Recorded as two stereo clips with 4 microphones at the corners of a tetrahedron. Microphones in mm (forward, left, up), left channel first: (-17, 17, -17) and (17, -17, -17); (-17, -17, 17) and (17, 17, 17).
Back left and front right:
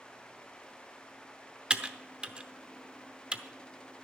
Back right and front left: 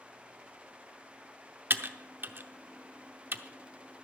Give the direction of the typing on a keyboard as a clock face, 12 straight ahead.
11 o'clock.